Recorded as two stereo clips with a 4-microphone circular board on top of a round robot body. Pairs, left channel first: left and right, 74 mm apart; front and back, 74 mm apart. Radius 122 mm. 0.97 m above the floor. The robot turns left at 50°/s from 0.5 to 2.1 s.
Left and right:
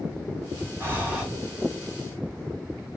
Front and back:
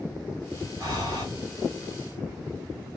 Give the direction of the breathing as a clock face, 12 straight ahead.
5 o'clock.